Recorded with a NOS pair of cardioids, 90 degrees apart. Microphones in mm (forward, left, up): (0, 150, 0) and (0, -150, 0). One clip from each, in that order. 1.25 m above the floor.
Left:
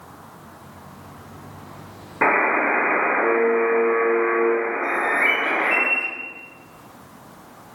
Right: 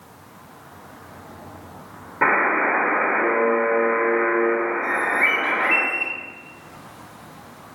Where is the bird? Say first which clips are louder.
Even; straight ahead, 1.1 m.